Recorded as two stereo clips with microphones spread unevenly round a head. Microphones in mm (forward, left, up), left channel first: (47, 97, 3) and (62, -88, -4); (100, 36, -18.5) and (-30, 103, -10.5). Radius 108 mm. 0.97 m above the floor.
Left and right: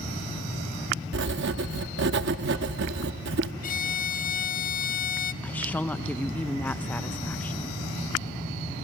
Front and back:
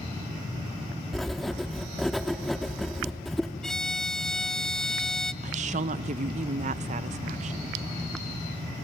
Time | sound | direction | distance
1.1 | writing | 120° right | 0.7 m
3.6 | a violin | 55° left | 0.5 m
5.4 | a woman speaking | 175° left | 0.5 m